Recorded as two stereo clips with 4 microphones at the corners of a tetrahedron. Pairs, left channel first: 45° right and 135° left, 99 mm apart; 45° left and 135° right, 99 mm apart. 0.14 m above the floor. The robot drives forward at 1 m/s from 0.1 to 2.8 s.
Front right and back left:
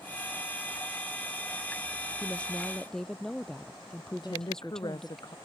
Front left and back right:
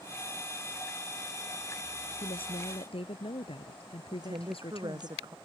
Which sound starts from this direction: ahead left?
A woman speaking, at 2.2 s.